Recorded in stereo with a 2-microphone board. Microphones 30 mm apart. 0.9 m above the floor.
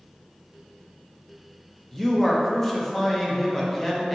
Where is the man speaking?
10° left (ahead or behind), 0.5 m.